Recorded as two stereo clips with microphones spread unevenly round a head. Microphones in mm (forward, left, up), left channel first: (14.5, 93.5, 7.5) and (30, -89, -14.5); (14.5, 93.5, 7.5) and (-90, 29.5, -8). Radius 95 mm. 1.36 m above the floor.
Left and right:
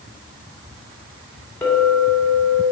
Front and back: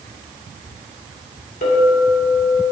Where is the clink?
15° left, 2.5 m.